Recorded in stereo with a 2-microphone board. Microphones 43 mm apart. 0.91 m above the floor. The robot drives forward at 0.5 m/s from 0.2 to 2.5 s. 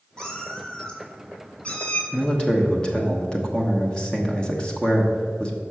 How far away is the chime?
No chime in this recording.